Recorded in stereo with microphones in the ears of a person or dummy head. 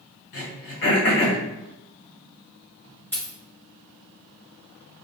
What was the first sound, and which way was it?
Throat clearing, 60° left (ahead or behind).